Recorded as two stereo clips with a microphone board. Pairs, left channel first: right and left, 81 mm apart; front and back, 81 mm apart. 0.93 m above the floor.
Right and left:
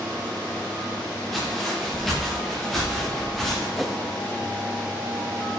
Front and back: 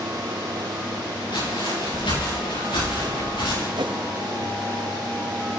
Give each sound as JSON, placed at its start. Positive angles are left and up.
{"t": 1.3, "sound": "footsteps", "azimuth_deg": -5, "distance_m": 5.5}
{"t": 3.8, "sound": "a whoosh", "azimuth_deg": 180, "distance_m": 0.8}